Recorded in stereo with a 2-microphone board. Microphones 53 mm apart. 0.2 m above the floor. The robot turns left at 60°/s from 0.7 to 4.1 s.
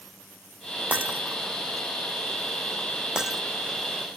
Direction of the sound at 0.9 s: 30° right (ahead or behind).